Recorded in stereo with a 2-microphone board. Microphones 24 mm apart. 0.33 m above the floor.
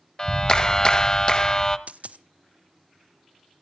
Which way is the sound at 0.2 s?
30° left (ahead or behind).